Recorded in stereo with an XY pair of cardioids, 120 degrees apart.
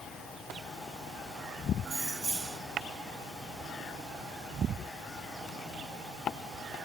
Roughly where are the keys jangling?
Ahead right.